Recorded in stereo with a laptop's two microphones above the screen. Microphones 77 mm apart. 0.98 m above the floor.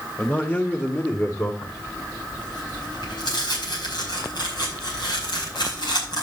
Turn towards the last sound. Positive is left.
turn(degrees=75)  # may be behind; listen again after turning